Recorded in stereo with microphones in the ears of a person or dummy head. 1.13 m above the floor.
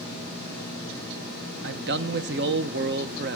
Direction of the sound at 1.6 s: 50° right (ahead or behind).